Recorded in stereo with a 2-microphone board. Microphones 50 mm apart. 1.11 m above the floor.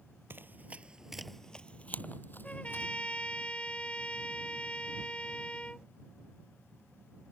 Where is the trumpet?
25° left (ahead or behind).